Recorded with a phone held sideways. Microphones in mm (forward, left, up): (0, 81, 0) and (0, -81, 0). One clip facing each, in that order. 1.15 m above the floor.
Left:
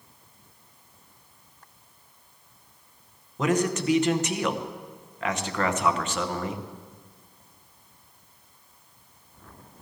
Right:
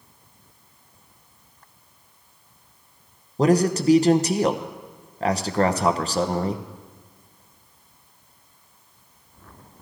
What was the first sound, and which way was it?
A man speaking, 35° right (ahead or behind).